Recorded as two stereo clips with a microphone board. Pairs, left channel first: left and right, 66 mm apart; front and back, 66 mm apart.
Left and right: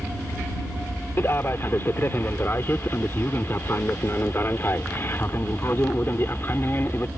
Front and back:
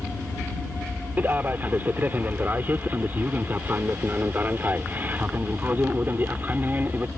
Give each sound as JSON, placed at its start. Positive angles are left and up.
{"t": 1.2, "sound": "a man speaking", "azimuth_deg": 130}